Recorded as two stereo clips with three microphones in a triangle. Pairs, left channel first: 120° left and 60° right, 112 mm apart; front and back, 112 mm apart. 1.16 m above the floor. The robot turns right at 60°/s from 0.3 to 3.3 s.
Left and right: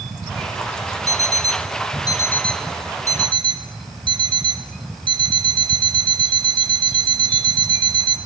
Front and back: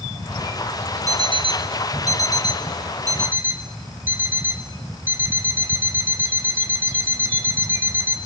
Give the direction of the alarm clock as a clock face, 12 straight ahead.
8 o'clock.